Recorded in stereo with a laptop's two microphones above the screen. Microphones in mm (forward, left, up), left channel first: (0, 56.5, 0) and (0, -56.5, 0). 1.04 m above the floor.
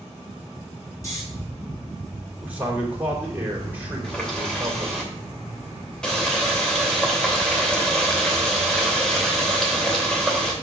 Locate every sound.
1.0 s snoring: 25° left (ahead or behind), 4.5 m
2.4 s a man speaking: 15° right (ahead or behind), 3.5 m
4.0 s a running tap: 5° left (ahead or behind), 3 m